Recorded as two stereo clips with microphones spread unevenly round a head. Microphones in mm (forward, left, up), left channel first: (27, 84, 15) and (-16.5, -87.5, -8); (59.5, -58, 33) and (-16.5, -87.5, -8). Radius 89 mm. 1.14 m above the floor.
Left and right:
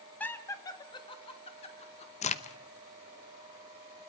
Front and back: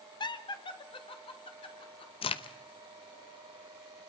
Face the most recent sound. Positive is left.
turn(degrees=20)